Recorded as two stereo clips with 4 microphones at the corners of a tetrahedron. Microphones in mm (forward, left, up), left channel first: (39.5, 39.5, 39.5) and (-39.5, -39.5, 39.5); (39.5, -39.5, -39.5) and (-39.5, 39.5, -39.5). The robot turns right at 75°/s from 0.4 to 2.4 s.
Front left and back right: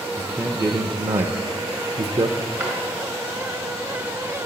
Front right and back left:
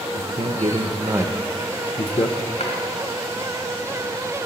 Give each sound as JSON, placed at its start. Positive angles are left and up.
{"t": 0.2, "sound": "a man speaking", "azimuth_deg": 140, "distance_m": 0.7}
{"t": 2.6, "sound": "a drawer", "azimuth_deg": -60, "distance_m": 3.0}